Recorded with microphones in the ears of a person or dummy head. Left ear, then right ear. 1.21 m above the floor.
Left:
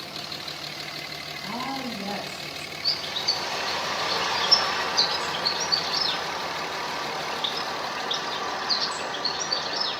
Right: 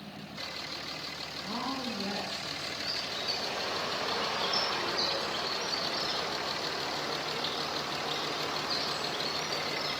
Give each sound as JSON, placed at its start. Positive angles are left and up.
{"t": 1.4, "sound": "a woman speaking", "side_deg": 35, "distance_m": 6.0}
{"t": 2.8, "sound": "a bird", "side_deg": 70, "distance_m": 2.5}